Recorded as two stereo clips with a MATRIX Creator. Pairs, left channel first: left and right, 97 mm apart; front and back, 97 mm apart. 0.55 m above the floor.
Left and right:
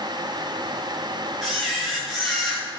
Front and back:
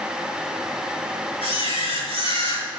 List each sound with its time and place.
1.4 s a camera shutter: straight ahead, 5.5 m